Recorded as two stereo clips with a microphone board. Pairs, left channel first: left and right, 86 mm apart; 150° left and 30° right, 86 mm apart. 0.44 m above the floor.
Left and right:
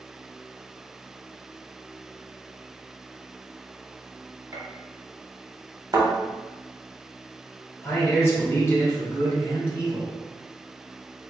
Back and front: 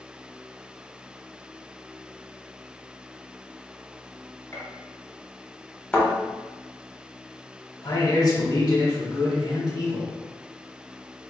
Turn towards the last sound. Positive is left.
turn(degrees=135)